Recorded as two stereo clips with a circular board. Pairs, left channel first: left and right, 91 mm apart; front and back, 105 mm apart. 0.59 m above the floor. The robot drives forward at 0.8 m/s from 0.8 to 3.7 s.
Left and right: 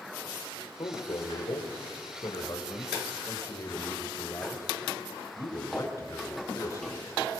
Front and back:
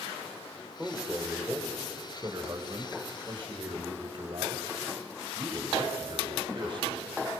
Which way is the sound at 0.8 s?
100° left.